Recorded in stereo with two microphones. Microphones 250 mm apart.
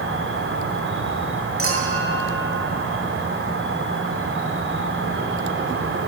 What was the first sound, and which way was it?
An insect, 55° right (ahead or behind).